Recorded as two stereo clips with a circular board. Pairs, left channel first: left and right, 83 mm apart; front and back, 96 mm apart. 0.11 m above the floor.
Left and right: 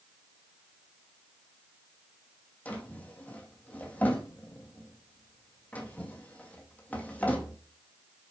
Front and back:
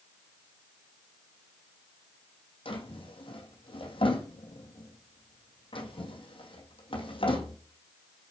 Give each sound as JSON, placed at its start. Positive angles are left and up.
{"t": 2.6, "sound": "a drawer", "azimuth_deg": 20, "distance_m": 1.7}